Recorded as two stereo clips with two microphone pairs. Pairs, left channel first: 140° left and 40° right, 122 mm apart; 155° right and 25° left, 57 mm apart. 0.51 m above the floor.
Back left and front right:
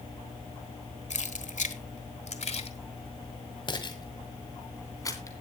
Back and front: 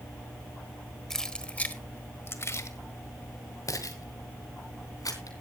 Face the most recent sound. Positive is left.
turn(degrees=-160)